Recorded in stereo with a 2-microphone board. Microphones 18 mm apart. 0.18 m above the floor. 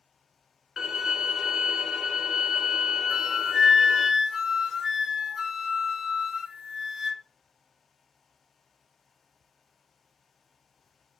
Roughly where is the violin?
Right.